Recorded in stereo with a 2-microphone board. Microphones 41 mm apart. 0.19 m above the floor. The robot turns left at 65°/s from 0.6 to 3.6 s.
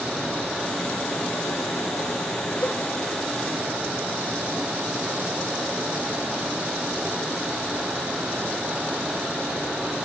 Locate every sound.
0.0 s running water: 170° left, 5.5 m; by 10.1 s 25° right, 5.5 m
2.6 s a cowbell: 45° left (ahead or behind), 0.5 m; by 2.8 s 40° left (ahead or behind), 0.5 m